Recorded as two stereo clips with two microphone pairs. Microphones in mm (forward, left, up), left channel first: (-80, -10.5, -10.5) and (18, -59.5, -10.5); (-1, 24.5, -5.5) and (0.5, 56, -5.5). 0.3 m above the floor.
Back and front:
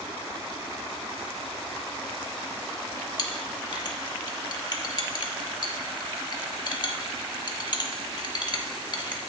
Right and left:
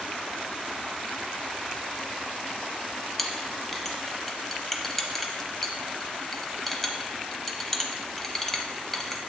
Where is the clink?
175° right, 0.7 m.